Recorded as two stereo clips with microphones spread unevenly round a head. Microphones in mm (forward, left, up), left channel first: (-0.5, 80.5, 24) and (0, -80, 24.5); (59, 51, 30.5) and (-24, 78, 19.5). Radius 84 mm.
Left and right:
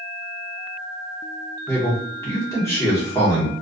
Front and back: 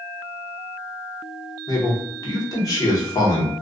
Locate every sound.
1.7 s a man speaking: 20° left, 1.0 m